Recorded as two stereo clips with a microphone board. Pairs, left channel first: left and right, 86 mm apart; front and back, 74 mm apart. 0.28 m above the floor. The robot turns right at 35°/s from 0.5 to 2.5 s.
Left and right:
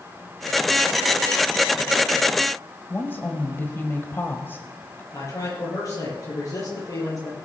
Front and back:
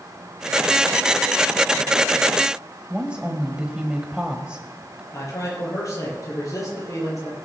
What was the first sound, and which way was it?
A woman speaking, 120° left.